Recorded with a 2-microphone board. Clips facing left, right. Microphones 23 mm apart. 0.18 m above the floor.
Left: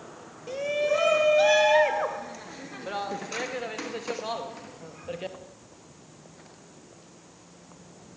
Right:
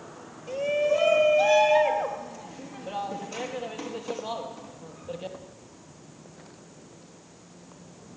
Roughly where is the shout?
Left.